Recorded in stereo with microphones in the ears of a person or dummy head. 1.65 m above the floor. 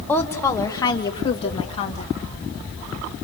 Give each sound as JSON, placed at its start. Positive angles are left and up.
{"t": 0.1, "sound": "a woman speaking", "side_deg": 10, "distance_m": 1.8}